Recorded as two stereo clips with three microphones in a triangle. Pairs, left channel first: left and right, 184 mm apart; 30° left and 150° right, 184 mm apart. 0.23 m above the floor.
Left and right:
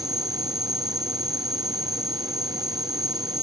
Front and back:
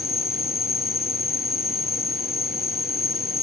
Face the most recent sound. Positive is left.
turn(degrees=-5)